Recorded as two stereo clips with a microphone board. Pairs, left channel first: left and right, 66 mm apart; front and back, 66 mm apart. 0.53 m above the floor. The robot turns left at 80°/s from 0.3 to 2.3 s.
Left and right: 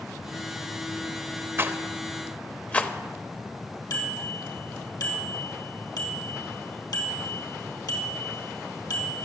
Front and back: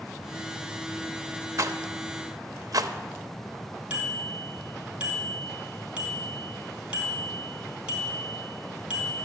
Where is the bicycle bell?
110° left, 3 m.